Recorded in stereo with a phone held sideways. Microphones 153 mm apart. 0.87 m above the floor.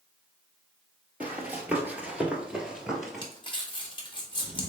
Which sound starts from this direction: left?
Crumpling, at 3.2 s.